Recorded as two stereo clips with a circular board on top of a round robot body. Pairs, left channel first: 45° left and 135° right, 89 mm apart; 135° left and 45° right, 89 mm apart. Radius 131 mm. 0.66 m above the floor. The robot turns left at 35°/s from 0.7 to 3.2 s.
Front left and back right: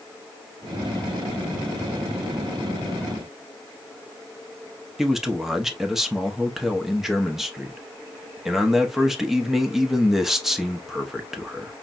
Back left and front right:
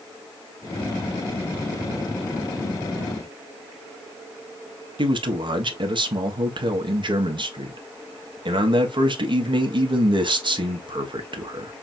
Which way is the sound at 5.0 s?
50° right.